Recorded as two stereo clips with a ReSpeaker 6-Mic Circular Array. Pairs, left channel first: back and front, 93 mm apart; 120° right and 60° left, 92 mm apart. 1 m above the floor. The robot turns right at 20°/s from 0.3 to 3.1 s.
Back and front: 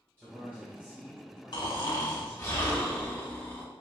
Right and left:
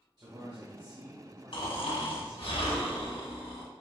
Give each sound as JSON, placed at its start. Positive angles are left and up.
{"t": 0.2, "sound": "a man speaking", "azimuth_deg": 60, "distance_m": 1.2}
{"t": 1.5, "sound": "snoring", "azimuth_deg": -140, "distance_m": 1.2}